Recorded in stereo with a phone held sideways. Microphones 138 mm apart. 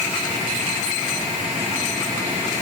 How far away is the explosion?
I don't hear an explosion.